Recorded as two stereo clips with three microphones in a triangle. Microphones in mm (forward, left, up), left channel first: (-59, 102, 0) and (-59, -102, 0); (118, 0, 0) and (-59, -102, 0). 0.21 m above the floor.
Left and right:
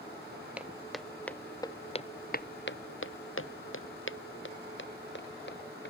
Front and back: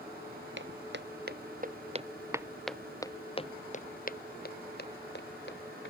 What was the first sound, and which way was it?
Footsteps, 175° right.